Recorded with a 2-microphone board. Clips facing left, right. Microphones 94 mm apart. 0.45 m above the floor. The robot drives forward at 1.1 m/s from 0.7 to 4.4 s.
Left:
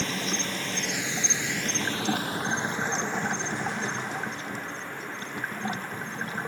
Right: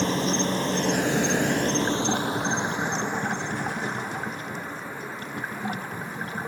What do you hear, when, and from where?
0.0 s an insect: 35° right (ahead or behind); by 6.5 s 10° right (ahead or behind)